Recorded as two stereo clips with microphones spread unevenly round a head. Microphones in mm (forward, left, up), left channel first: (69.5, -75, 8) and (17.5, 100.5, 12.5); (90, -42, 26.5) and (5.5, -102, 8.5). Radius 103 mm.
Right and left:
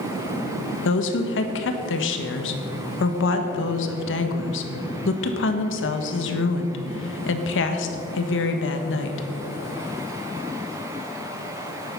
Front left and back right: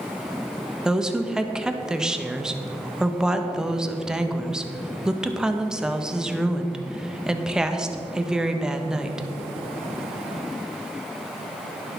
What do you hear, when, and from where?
0.8 s a woman speaking: 60° right, 1.5 m